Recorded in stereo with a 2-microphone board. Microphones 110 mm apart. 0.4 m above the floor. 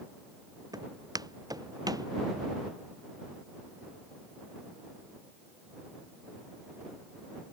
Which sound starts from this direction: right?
Footsteps, at 0.7 s.